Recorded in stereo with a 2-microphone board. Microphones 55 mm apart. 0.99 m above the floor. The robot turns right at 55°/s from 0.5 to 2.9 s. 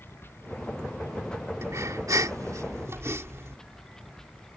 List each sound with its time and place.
0.0 s running water: 40° left; by 4.6 s 170° left
1.6 s breathing: 125° right; by 3.6 s 55° right